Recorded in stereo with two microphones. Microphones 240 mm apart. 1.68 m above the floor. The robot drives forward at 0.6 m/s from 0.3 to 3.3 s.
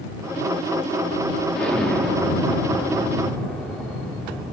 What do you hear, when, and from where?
1.6 s an explosion: 5° left (ahead or behind), 3 m